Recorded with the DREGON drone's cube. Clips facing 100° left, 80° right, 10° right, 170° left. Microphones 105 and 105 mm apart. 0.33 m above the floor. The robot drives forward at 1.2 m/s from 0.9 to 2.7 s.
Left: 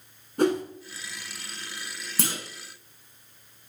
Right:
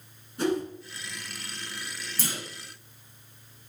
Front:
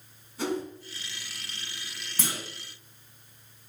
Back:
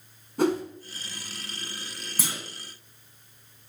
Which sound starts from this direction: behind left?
A whoosh, at 0.4 s.